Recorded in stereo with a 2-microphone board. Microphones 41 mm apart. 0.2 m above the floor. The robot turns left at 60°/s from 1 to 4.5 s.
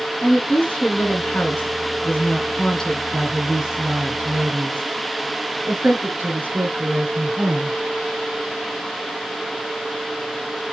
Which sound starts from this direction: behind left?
A woman speaking, at 0.2 s.